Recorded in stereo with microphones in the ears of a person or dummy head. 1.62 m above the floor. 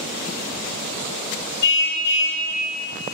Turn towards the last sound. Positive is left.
turn(degrees=60)  # may be behind; listen again after turning